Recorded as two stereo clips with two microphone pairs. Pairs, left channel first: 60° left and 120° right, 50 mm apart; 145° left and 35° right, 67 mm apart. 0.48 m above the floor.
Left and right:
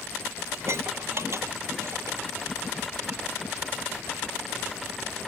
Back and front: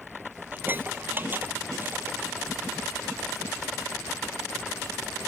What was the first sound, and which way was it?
Dishes clattering, 95° right.